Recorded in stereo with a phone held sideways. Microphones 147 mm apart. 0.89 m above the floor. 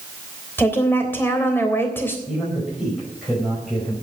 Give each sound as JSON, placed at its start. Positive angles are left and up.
{"t": 0.6, "sound": "a woman speaking", "side_deg": 15, "distance_m": 3.0}
{"t": 2.3, "sound": "a man speaking", "side_deg": 0, "distance_m": 5.0}